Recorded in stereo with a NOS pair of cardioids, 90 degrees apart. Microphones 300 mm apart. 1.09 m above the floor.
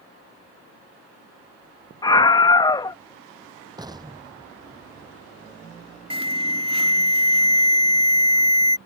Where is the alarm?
20° right.